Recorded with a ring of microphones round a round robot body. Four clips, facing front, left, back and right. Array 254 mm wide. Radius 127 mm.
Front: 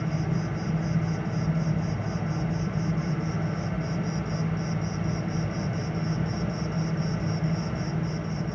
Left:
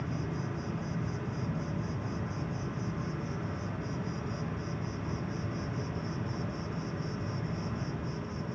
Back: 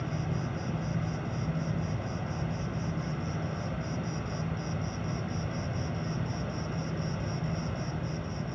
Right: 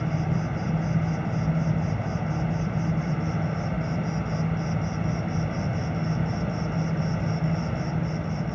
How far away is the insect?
About 1.3 m.